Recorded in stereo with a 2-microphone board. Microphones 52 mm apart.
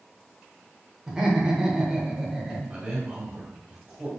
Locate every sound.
1.1 s laughter: 15° right (ahead or behind), 0.9 m
2.7 s a man speaking: 15° right (ahead or behind), 1.9 m